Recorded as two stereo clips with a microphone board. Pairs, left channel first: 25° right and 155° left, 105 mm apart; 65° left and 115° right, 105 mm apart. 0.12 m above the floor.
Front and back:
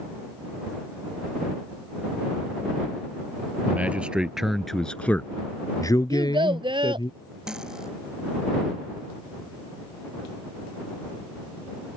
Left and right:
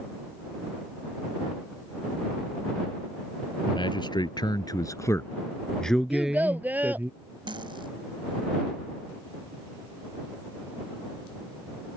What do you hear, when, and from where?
3.7 s a man speaking: 85° left; by 7.1 s 45° right
6.1 s a child speaking: straight behind
7.5 s cutlery clinking: 120° right